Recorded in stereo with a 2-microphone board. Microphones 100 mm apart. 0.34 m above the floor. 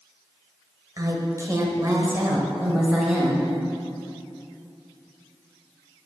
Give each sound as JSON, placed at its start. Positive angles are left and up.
{"t": 1.0, "sound": "a woman speaking", "side_deg": -35, "distance_m": 1.6}